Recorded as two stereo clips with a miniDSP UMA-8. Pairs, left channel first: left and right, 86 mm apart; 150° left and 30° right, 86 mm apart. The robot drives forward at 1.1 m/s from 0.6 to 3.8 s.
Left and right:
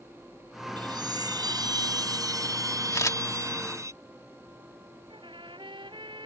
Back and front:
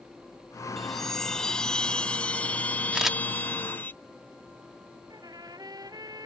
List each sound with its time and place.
0.8 s a chime: 120° right; by 3.9 s 140° right
2.9 s a camera shutter: 50° left; by 3.2 s 60° left
5.1 s a trumpet: 70° right